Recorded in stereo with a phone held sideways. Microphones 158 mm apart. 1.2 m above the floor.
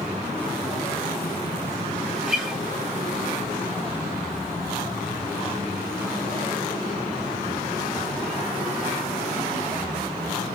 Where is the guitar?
5° right (ahead or behind), 1.6 m.